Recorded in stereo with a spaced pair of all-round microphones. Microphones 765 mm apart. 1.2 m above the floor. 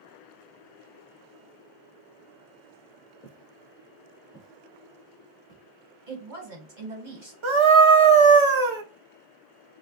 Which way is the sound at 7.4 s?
40° right (ahead or behind).